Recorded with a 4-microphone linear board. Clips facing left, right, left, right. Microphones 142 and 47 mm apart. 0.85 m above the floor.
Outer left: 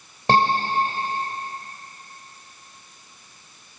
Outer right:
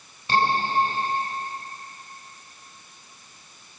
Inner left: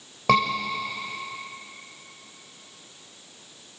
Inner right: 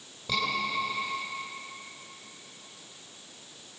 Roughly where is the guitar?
I don't hear a guitar.